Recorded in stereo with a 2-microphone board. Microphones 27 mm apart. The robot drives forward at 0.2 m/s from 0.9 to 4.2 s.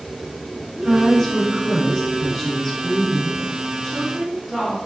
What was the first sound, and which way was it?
A woman speaking, centre (ahead or behind).